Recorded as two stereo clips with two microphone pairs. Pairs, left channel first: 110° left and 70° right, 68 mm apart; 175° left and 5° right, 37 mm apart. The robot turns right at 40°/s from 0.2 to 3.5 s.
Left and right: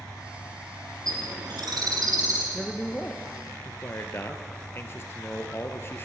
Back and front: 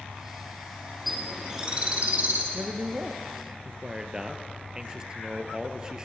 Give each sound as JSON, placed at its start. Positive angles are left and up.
{"t": 0.0, "sound": "an engine running", "azimuth_deg": 5, "distance_m": 4.5}
{"t": 1.1, "sound": "a bird", "azimuth_deg": -90, "distance_m": 5.0}
{"t": 2.5, "sound": "a man speaking", "azimuth_deg": 25, "distance_m": 2.0}